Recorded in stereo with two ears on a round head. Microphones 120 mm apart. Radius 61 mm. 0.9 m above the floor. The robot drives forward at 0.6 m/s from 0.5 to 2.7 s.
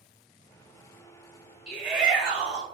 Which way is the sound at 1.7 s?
5° right (ahead or behind).